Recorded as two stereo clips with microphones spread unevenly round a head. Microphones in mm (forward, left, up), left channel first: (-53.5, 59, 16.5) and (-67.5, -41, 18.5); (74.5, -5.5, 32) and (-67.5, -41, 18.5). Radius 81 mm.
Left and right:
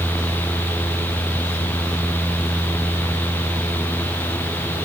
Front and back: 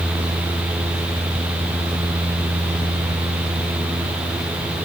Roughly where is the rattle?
No rattle in this recording.